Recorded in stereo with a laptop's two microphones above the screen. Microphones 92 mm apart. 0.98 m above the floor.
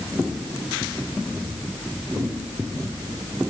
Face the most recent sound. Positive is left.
No sound to turn to.